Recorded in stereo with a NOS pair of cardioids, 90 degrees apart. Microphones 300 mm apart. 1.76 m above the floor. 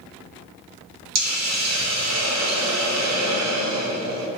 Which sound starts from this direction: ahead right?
A hiss, at 1.1 s.